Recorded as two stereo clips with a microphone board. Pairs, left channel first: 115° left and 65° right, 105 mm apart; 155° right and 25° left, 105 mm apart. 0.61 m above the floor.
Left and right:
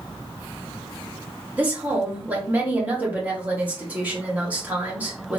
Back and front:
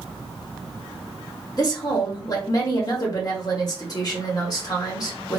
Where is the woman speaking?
135° right, 1.5 m.